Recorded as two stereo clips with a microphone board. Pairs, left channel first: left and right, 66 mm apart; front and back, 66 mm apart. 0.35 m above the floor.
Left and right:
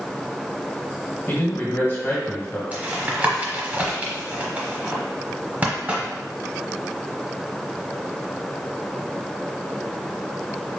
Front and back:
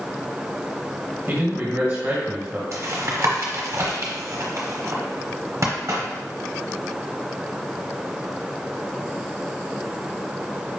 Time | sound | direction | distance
1.3 | a man speaking | 120° left | 1.6 m
2.7 | tapping | 150° right | 0.9 m